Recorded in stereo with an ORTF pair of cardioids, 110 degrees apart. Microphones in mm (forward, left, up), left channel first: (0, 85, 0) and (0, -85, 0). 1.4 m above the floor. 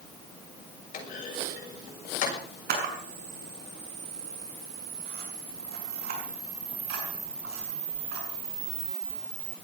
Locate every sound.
0.9 s a clunk: 50° left, 7 m
2.7 s a camera shutter: 70° right, 6.5 m